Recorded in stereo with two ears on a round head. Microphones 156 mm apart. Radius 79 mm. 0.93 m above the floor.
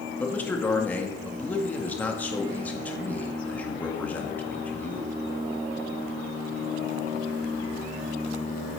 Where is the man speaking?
10° left (ahead or behind), 1.7 m.